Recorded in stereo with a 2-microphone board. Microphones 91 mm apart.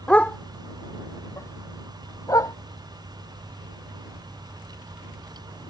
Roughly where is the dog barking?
Centre.